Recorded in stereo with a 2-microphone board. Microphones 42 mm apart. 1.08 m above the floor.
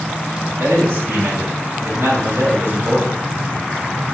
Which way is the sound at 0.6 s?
80° right.